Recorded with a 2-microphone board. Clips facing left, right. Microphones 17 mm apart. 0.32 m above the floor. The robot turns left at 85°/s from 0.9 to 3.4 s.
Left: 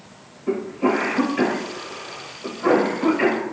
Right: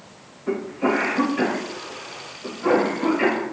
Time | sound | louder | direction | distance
0.5 | a cough | left 1 dB | 15° right (ahead or behind) | 1.4 m